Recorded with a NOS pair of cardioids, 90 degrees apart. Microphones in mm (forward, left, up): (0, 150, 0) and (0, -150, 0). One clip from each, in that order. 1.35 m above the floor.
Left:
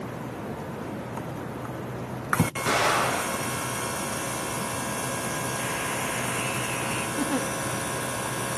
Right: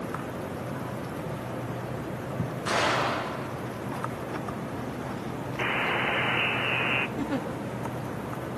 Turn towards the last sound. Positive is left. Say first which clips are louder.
# left 4 dB
turn(degrees=20)